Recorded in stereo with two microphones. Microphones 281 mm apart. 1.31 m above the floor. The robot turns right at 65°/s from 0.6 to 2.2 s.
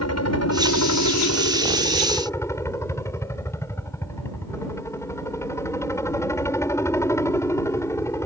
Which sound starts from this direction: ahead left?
A helicopter, at 0.0 s.